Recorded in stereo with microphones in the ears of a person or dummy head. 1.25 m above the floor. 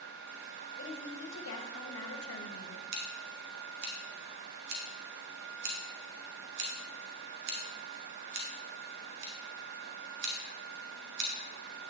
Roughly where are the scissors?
Right.